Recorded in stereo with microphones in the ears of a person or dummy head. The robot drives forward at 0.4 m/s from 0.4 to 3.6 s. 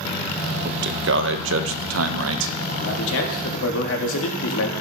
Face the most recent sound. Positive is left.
turn(degrees=80)